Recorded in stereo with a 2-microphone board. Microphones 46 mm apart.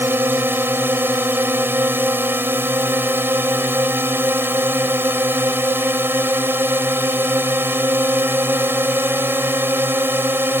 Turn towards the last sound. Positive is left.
turn(degrees=-55)  # may be behind; listen again after turning